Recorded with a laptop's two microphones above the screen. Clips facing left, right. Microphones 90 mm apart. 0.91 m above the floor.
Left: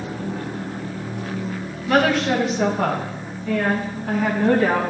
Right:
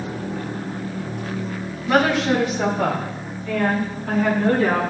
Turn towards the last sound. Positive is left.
turn(degrees=15)  # may be behind; listen again after turning